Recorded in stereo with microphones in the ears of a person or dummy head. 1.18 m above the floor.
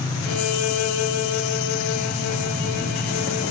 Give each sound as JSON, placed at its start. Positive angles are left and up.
{"t": 0.2, "sound": "a violin", "side_deg": 75, "distance_m": 3.5}